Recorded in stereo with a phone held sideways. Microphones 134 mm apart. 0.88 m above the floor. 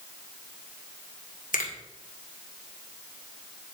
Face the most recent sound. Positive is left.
turn(degrees=80)